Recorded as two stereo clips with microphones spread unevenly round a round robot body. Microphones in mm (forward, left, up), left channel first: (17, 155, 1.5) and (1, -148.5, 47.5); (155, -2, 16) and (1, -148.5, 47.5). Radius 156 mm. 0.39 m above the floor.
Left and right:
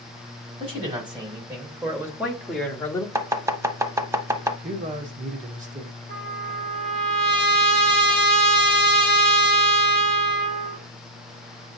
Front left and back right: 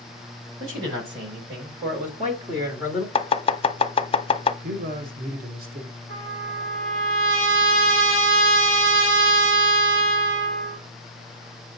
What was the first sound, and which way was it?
A man speaking, 170° right.